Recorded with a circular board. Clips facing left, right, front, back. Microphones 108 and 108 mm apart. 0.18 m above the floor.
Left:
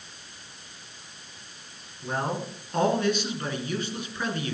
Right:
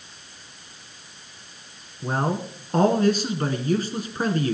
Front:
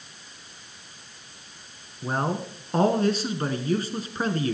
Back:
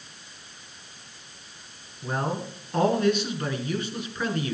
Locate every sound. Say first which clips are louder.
2.0 s a man speaking: right 4 dB, front 2 dB; 50° right, 2.0 m